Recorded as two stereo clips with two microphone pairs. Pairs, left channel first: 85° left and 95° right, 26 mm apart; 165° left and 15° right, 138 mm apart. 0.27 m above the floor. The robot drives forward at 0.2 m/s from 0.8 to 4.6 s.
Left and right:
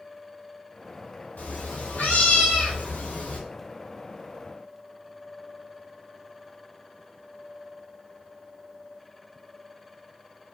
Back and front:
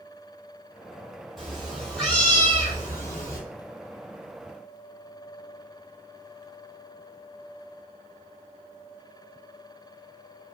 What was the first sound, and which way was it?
A cat meowing, 75° left.